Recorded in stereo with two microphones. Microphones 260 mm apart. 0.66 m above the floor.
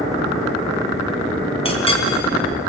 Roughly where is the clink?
Left.